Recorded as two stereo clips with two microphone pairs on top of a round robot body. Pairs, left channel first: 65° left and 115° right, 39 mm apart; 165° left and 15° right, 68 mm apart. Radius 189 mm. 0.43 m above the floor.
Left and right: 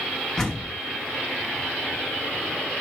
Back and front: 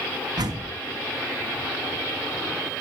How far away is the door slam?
About 4 m.